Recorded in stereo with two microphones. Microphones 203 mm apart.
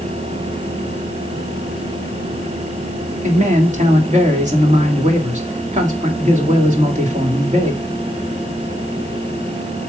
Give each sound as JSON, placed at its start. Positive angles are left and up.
{"t": 3.2, "sound": "a man speaking", "side_deg": -35, "distance_m": 2.0}